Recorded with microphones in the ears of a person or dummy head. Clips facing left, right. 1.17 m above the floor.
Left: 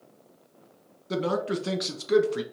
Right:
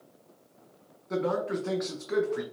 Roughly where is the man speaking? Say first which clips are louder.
Left 1 dB; left.